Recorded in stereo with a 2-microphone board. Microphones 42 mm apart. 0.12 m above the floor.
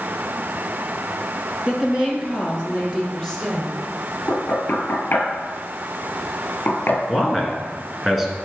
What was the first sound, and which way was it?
A woman speaking, 20° right (ahead or behind).